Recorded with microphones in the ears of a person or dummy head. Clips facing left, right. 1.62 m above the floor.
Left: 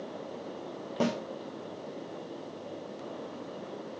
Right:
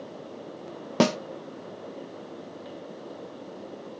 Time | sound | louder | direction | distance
1.0 | a snare drum | right 7 dB | 80° right | 0.7 m